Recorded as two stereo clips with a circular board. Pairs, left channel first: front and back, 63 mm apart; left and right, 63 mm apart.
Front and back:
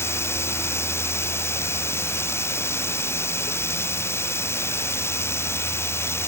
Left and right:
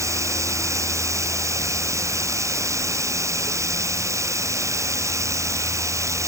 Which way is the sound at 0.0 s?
50° right.